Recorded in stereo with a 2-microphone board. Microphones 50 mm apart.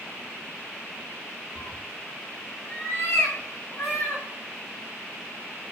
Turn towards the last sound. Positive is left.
turn(degrees=60)  # may be behind; listen again after turning